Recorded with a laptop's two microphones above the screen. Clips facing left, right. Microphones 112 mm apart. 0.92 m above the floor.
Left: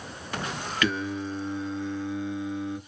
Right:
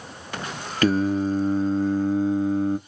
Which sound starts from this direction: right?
Singing, at 0.8 s.